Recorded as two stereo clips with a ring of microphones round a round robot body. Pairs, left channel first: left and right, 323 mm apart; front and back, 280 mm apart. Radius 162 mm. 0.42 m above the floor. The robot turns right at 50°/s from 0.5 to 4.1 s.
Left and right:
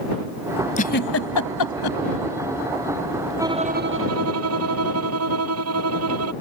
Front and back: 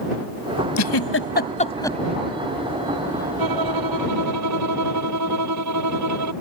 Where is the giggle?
20° left; by 2.0 s 85° left.